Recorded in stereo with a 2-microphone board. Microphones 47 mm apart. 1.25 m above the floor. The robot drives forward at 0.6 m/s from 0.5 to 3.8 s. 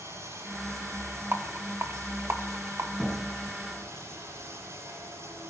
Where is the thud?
5° right (ahead or behind), 5 m.